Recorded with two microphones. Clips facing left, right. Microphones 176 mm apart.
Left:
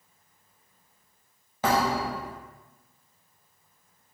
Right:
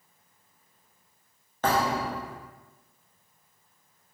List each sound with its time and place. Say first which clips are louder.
1.6 s a thud: left 1 dB; 10° left (ahead or behind), 1.1 m